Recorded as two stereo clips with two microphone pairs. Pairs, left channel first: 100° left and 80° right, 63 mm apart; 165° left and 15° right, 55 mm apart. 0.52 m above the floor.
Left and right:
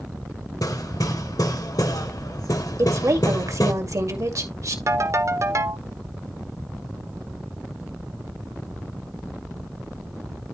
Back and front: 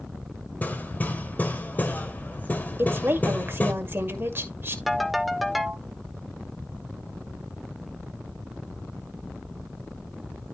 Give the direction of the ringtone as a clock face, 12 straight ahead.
4 o'clock.